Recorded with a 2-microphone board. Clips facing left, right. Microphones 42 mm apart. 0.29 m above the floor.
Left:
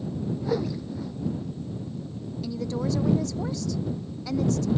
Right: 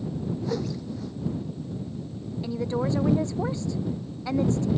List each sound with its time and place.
0.4 s a whoosh: 10° left (ahead or behind)
2.4 s a woman speaking: 25° right (ahead or behind)